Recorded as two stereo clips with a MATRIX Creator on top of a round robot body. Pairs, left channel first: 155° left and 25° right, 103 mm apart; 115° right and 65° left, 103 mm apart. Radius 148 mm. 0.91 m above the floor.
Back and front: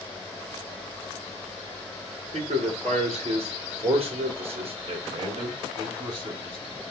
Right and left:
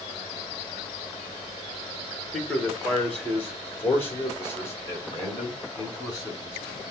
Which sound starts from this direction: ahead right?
A man speaking, at 2.3 s.